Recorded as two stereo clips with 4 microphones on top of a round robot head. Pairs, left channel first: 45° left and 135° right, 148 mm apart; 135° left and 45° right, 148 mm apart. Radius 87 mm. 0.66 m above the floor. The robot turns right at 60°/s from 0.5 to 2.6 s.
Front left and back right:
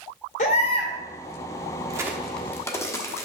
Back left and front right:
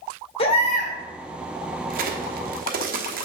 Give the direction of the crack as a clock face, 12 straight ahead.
2 o'clock.